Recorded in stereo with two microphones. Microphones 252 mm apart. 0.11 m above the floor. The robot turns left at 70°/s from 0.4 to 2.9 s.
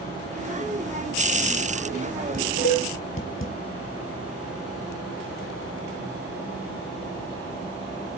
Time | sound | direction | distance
2.3 | dishes clattering | 35° left (ahead or behind) | 1.5 m